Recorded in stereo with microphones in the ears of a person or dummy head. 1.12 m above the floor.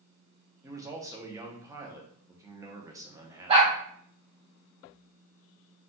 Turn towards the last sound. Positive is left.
turn(degrees=-35)  # may be behind; listen again after turning